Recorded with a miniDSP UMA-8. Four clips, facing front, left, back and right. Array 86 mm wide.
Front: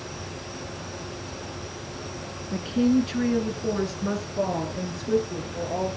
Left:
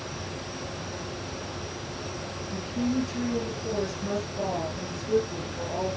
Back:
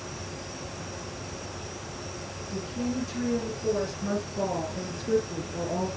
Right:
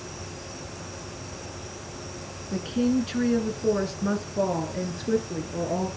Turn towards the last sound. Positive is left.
turn(degrees=-100)